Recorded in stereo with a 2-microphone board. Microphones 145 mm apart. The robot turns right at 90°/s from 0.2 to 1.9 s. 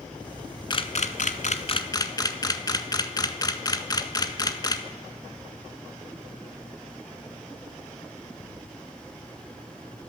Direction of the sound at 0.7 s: 30° left (ahead or behind).